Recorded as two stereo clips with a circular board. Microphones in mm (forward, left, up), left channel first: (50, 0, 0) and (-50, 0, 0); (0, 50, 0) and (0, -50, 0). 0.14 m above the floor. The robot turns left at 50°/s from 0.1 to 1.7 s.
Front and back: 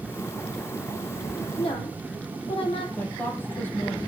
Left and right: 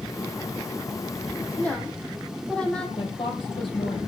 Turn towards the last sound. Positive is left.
turn(degrees=70)